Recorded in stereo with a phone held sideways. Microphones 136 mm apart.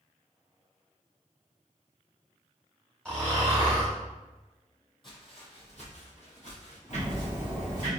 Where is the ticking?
60° left (ahead or behind), 1.6 m.